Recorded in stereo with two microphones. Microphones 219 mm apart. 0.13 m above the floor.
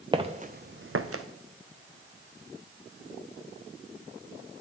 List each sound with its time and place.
0.1 s footsteps: 20° right (ahead or behind), 0.7 m; by 1.2 s 85° right, 0.6 m